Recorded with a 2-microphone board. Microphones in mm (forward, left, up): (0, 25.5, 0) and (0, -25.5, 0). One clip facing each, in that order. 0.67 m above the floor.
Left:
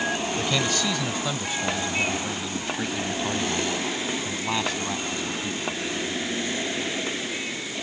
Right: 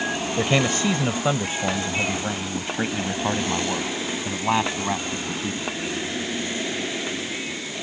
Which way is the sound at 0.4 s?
35° right (ahead or behind).